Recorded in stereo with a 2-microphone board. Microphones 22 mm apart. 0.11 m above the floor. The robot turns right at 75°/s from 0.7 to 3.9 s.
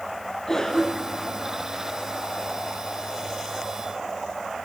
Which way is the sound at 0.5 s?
20° left (ahead or behind).